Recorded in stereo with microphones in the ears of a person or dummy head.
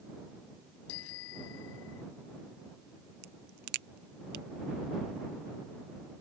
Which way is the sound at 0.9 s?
70° left (ahead or behind).